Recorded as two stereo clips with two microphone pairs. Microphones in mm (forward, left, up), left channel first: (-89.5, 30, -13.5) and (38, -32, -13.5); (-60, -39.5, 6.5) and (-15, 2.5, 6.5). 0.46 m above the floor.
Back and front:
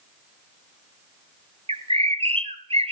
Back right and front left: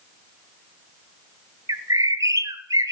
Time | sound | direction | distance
1.7 | a bird | 20° left | 0.5 m